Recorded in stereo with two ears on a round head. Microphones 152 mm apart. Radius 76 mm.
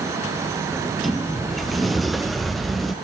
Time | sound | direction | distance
0.7 | a sliding door | centre (ahead or behind) | 0.6 m